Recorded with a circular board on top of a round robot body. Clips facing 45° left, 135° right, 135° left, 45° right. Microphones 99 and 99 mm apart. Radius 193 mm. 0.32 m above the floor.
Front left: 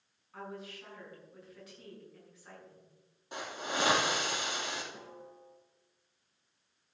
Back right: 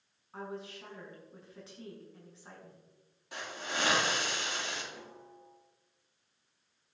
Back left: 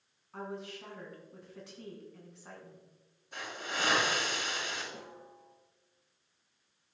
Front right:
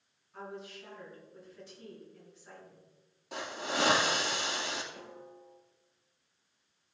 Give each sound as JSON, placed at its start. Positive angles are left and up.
{"t": 0.3, "sound": "a woman speaking", "azimuth_deg": 165, "distance_m": 6.0}
{"t": 3.3, "sound": "a hiss", "azimuth_deg": -20, "distance_m": 3.5}
{"t": 4.9, "sound": "a snare drum", "azimuth_deg": 120, "distance_m": 6.5}